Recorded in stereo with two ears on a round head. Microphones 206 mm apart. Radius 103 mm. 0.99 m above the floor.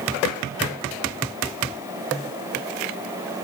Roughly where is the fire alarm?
I don't hear a fire alarm.